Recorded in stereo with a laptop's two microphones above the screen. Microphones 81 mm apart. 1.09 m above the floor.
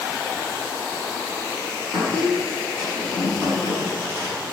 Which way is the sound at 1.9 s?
15° left (ahead or behind).